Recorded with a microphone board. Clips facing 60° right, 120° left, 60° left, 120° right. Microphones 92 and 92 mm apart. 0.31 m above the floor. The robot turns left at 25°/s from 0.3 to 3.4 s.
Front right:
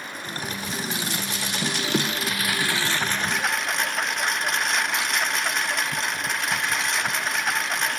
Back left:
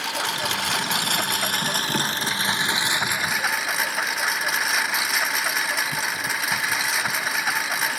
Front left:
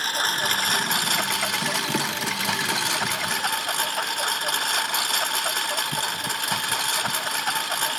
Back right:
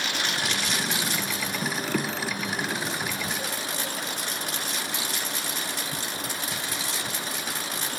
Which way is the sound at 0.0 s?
110° left.